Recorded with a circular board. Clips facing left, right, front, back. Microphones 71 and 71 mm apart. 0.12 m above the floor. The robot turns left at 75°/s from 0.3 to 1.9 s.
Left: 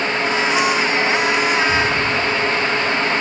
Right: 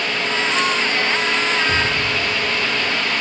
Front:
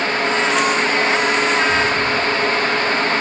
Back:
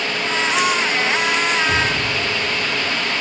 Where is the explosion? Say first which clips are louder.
Left 2 dB, front 3 dB; 135° right, 3 m; by 3.0 s 155° right, 3 m.